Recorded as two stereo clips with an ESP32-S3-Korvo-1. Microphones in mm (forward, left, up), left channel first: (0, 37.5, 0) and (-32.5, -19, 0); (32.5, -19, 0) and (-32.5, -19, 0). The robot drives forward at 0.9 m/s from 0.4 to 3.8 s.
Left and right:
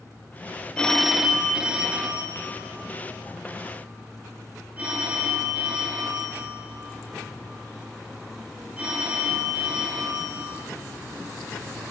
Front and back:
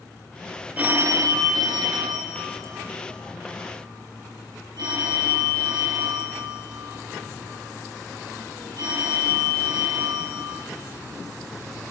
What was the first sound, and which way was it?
A phone ringing, 125° left.